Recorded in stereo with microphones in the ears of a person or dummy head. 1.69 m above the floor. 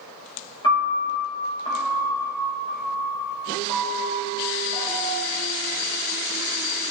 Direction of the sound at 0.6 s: 30° left (ahead or behind).